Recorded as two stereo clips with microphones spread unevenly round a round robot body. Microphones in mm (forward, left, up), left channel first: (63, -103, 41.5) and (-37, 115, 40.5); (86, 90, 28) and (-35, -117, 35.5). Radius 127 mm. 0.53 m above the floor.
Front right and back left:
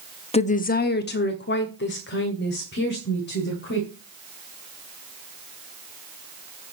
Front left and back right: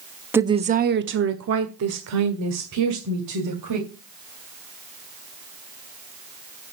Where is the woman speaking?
45° right, 0.8 m; by 3.9 s 115° right, 3 m.